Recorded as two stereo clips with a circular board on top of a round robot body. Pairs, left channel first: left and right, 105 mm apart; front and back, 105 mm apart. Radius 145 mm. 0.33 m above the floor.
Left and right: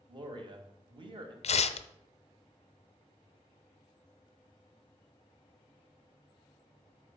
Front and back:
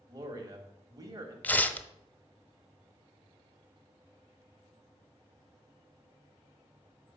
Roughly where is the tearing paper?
Left.